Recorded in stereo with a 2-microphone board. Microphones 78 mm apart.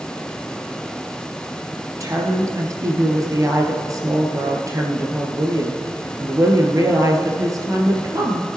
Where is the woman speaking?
45° right (ahead or behind), 2.5 m.